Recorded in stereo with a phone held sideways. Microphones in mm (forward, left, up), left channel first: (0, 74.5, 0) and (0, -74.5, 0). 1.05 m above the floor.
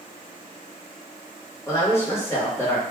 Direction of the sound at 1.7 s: 20° left (ahead or behind).